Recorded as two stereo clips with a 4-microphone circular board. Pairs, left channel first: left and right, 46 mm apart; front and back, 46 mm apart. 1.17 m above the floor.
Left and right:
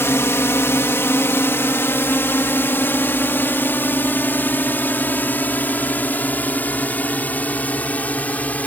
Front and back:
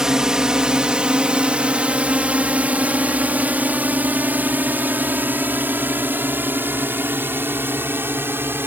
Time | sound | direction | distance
0.0 | a drone | 105° left | ?